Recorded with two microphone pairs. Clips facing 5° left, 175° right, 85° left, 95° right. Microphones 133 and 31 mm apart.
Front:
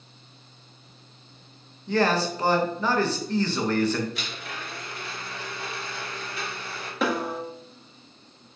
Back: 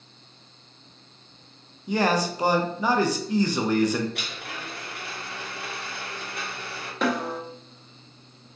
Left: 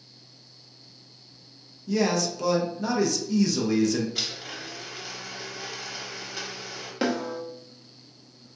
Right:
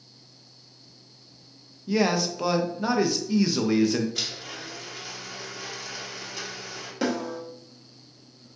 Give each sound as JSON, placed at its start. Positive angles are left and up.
{"t": 1.9, "sound": "a man speaking", "azimuth_deg": -120, "distance_m": 0.5}
{"t": 4.2, "sound": "a blender", "azimuth_deg": 165, "distance_m": 0.9}
{"t": 7.0, "sound": "a snare drum", "azimuth_deg": 95, "distance_m": 0.7}